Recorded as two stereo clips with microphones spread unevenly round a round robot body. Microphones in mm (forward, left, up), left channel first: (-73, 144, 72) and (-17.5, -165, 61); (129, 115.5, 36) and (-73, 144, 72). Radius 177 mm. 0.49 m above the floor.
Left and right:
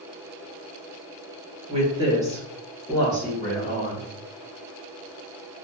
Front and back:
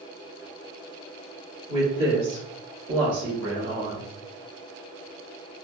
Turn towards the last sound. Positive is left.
turn(degrees=-175)